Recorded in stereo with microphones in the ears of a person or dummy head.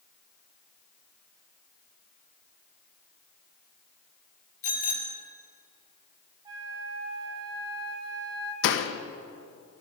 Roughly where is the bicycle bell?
Left.